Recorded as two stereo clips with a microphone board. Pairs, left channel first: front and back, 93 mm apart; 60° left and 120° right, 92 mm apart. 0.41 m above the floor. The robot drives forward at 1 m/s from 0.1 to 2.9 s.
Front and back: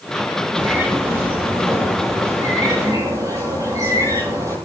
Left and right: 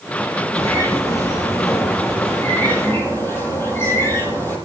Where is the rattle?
I don't hear a rattle.